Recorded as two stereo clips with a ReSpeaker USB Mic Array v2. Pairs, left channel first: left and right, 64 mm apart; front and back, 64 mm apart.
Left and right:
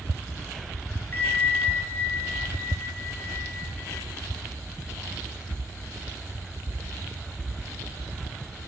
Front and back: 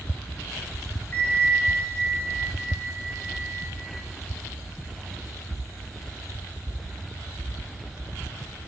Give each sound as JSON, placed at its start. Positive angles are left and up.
{"t": 1.1, "sound": "a bell", "azimuth_deg": 50, "distance_m": 0.9}